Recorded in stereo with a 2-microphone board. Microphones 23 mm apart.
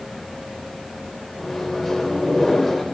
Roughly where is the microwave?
Centre.